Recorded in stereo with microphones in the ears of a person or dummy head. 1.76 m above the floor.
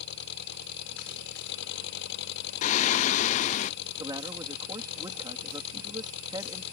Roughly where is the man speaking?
Right.